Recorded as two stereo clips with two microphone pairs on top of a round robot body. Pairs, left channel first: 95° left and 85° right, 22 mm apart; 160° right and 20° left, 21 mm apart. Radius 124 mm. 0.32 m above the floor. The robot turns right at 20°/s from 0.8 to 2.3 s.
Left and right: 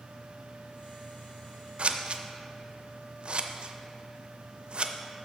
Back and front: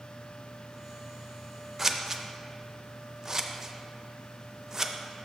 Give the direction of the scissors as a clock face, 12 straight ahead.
2 o'clock.